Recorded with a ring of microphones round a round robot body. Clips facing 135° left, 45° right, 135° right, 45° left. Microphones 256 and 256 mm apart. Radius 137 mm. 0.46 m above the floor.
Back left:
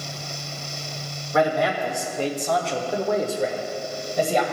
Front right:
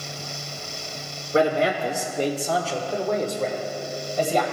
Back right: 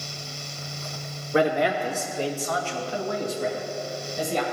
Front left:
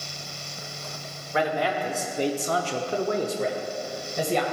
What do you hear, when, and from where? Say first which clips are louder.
1.3 s a man speaking: front right 1 dB, back right 4 dB; 95° right, 1.0 m; by 4.4 s 60° left, 2 m